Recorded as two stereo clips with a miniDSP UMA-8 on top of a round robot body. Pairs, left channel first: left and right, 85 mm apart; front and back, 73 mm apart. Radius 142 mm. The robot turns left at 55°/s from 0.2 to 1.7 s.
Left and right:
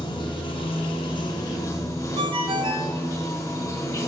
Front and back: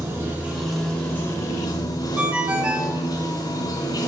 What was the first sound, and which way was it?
Running water, 115° left.